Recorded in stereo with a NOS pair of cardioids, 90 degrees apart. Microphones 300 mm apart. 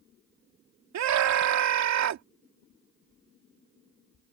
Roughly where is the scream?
Ahead right.